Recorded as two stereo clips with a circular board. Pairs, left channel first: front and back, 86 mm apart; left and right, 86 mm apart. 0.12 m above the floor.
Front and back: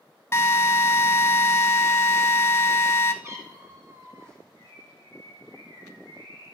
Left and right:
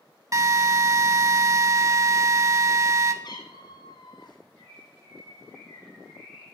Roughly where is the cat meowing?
Behind left.